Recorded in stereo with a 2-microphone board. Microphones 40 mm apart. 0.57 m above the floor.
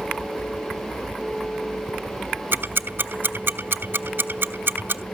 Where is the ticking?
65° right (ahead or behind), 1.2 m.